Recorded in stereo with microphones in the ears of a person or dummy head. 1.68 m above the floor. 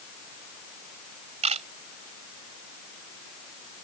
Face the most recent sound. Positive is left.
turn(degrees=-35)  # may be behind; listen again after turning